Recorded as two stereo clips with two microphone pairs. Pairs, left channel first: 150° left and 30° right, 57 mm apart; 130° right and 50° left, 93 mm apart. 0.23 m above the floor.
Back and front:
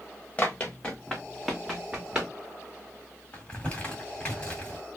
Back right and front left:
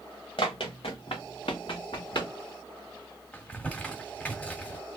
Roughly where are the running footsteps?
Behind right.